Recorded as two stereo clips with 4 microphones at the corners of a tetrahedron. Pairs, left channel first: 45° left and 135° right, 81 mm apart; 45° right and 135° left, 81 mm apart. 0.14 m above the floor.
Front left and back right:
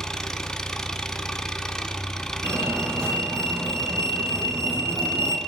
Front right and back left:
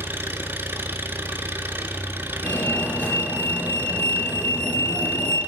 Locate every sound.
0.0 s an engine running: 120° left, 0.7 m
2.4 s a fire alarm: 100° right, 3 m